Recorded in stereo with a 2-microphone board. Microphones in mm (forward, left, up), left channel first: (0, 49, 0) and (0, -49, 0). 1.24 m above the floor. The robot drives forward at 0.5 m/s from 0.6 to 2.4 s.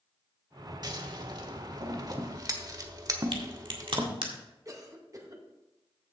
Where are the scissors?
45° right (ahead or behind), 1.2 m; by 4.1 s 40° right (ahead or behind), 1.3 m.